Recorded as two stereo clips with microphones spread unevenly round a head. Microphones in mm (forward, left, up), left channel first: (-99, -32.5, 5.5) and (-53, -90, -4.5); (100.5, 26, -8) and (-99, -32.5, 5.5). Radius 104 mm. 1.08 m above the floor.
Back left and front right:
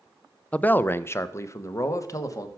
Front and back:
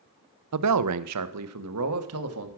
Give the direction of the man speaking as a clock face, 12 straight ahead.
5 o'clock.